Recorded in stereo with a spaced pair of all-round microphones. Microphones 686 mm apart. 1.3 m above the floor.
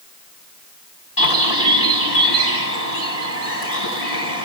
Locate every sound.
1.2 s a bird: 55° left (ahead or behind), 9 m